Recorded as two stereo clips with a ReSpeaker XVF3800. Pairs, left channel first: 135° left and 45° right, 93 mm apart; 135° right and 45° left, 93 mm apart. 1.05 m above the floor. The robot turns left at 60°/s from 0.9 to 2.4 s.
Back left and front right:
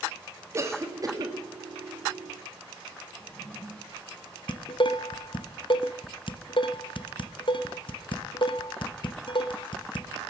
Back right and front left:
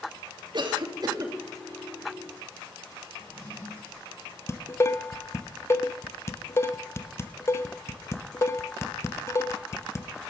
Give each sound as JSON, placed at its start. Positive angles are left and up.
{"t": 0.5, "sound": "a cough", "azimuth_deg": 15, "distance_m": 2.5}
{"t": 3.1, "sound": "a drawer", "azimuth_deg": 155, "distance_m": 6.0}
{"t": 4.5, "sound": "dishes clattering", "azimuth_deg": 165, "distance_m": 0.6}